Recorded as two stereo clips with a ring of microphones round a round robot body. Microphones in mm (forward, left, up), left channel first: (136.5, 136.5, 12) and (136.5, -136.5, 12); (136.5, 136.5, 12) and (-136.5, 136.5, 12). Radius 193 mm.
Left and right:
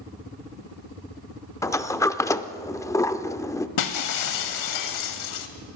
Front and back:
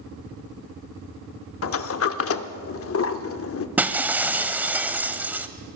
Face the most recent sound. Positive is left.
turn(degrees=95)